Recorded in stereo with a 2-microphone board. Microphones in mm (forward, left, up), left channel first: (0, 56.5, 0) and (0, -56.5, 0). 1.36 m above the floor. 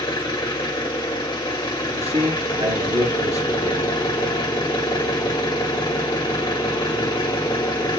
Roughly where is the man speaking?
Right.